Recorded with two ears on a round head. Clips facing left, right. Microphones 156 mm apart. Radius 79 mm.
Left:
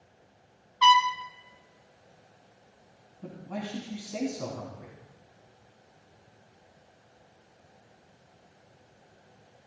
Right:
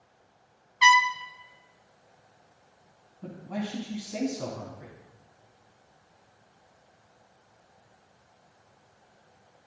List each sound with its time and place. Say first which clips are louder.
0.8 s a trumpet: left 1 dB; 15° right (ahead or behind), 0.7 m
3.2 s a man speaking: right 3 dB; 5° right (ahead or behind), 3 m